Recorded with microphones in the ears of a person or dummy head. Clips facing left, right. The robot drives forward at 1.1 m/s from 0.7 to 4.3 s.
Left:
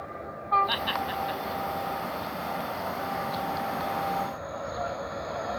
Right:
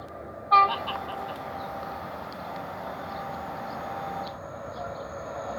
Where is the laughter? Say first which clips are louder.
Left 2 dB; 20° left (ahead or behind); by 1.4 s 25° left (ahead or behind).